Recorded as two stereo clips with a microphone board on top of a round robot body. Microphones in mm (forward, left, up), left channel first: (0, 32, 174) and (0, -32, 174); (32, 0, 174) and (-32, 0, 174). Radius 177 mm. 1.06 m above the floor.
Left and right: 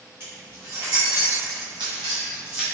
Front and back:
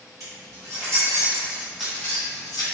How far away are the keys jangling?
About 1.8 m.